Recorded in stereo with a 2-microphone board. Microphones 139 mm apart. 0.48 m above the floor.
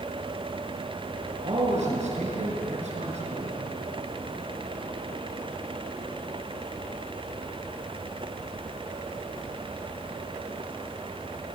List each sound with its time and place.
1.4 s a man speaking: 60° right (ahead or behind), 6.5 m